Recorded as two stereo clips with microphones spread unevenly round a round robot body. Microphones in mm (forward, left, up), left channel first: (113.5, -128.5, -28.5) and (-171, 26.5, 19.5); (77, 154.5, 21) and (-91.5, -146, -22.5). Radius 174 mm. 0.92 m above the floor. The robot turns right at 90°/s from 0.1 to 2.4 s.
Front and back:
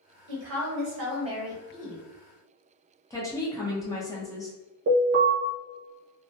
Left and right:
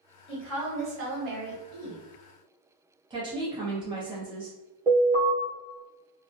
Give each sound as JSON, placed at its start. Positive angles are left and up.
{"t": 0.3, "sound": "a woman speaking", "azimuth_deg": 135, "distance_m": 1.2}
{"t": 3.1, "sound": "a woman speaking", "azimuth_deg": -75, "distance_m": 0.8}
{"t": 4.9, "sound": "an alarm", "azimuth_deg": -160, "distance_m": 1.1}